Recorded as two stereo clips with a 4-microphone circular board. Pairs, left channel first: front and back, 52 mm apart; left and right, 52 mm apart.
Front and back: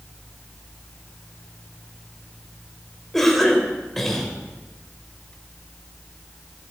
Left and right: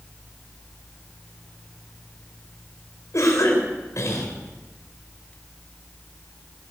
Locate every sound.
3.1 s a cough: 85° left, 3.5 m